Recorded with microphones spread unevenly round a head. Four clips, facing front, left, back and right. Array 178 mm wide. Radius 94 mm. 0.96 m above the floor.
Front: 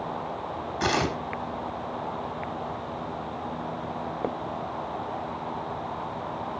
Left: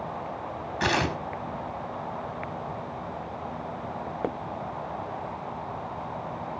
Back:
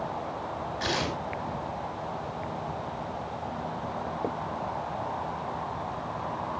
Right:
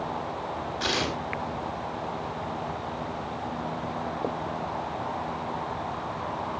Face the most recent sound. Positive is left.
turn(degrees=25)